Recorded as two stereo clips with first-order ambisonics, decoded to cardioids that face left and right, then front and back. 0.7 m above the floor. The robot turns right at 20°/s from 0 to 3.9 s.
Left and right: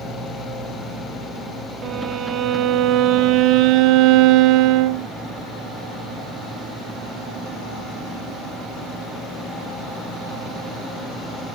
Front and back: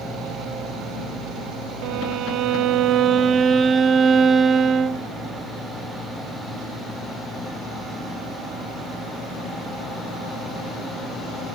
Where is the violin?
155° right, 0.6 m; by 5.1 s 110° right, 0.6 m.